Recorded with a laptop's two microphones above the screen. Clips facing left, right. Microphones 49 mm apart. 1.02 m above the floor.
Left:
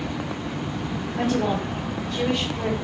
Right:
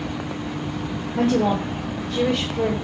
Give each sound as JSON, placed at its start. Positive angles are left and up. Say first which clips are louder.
{"t": 1.2, "sound": "a woman speaking", "louder": "right 4 dB", "side_deg": -60, "distance_m": 1.8}